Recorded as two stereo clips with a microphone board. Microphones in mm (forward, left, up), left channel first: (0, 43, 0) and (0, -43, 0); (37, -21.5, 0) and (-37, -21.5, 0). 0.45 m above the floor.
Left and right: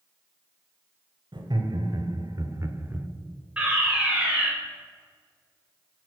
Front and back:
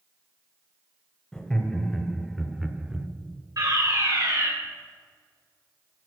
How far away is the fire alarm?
About 3.5 m.